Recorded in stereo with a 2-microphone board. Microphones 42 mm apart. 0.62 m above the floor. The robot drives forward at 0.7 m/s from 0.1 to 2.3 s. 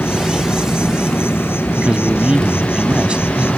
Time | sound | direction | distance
0.0 | an insect | 75° left (ahead or behind) | ?
1.8 | a man speaking | 25° right (ahead or behind) | ?